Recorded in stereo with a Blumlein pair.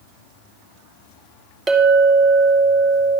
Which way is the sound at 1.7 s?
20° right.